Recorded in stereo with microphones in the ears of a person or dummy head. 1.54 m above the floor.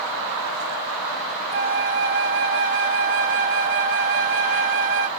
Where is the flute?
40° right (ahead or behind), 0.7 m.